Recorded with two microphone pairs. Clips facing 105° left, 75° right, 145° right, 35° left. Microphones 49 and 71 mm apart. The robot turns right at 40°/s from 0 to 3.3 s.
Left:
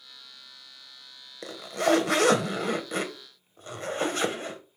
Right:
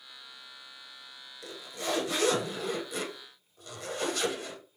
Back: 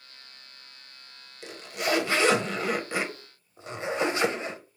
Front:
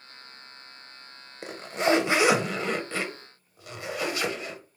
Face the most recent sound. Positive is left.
turn(degrees=155)